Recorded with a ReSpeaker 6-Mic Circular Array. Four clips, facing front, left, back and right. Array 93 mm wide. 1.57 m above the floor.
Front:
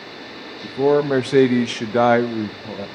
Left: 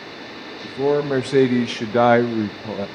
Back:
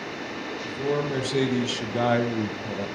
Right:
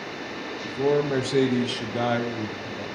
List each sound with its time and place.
0.6 s a man speaking: 15° left, 1.8 m; by 2.9 s 85° left, 1.0 m